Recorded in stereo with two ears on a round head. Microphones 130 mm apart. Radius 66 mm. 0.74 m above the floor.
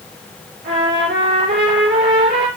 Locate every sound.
0.6 s a trumpet: 85° right, 5 m